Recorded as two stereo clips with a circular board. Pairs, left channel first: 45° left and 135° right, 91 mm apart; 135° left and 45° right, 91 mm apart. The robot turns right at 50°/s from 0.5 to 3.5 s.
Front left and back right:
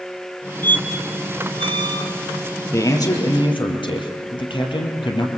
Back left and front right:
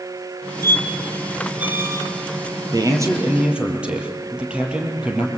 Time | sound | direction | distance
0.6 | a squeak | 170° right | 2 m
2.7 | a man speaking | 10° right | 4 m